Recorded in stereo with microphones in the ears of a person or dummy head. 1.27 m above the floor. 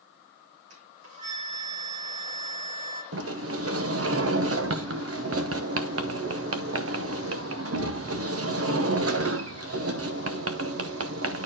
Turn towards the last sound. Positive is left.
turn(degrees=-70)  # may be behind; listen again after turning